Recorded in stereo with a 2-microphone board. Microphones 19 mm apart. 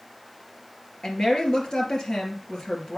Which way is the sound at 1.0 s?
45° left (ahead or behind).